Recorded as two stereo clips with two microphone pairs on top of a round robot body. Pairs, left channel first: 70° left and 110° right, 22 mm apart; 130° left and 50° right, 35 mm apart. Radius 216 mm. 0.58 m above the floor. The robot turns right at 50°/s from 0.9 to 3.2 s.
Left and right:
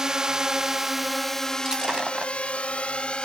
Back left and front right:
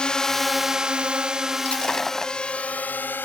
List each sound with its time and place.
0.0 s a drone: 170° right; by 3.3 s 110° left
1.6 s breaking glass: 175° right; by 2.3 s 140° right